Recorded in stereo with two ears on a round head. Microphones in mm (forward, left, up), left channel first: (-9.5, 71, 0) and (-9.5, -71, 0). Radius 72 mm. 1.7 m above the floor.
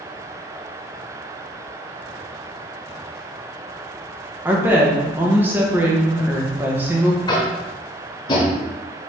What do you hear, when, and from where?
4.5 s a woman speaking: 15° right (ahead or behind), 1.2 m
7.3 s tapping: 30° left (ahead or behind), 1.6 m